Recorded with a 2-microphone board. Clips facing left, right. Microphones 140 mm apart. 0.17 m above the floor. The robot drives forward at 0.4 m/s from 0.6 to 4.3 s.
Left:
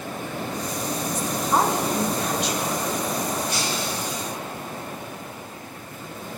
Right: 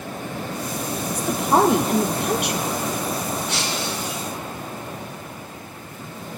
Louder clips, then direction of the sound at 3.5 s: Right 1 dB; 70° right (ahead or behind).